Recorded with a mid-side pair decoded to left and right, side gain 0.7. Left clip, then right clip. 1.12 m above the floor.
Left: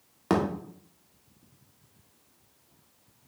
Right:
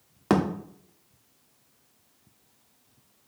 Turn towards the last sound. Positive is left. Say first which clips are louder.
# right 2 dB
turn(degrees=-15)